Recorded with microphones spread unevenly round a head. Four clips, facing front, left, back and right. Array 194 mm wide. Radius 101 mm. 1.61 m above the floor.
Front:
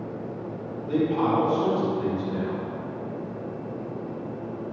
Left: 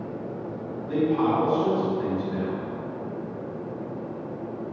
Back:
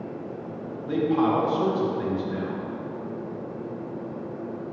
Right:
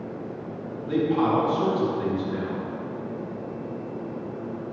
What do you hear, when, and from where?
0.9 s a man speaking: 165° right, 2.5 m